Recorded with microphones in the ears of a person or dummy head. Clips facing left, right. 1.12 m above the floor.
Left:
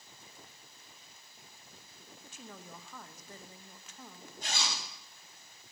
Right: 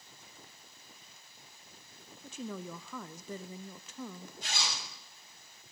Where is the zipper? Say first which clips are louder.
Left 2 dB; 40° left (ahead or behind), 3 m.